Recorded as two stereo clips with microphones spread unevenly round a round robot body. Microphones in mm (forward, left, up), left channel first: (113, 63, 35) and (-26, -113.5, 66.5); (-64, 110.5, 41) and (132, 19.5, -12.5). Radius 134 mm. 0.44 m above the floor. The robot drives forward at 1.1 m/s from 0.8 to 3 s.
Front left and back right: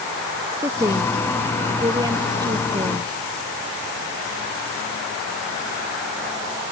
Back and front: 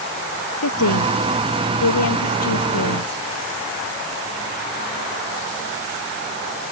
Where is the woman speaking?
150° left; by 3.2 s 155° left.